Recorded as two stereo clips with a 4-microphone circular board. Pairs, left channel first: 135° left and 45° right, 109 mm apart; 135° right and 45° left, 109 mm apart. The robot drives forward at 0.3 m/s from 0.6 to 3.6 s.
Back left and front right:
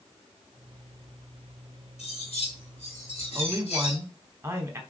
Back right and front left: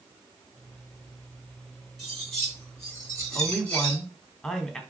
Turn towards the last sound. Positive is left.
turn(degrees=-60)